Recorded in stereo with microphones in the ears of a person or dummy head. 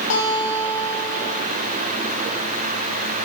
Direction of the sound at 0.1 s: 75° left (ahead or behind).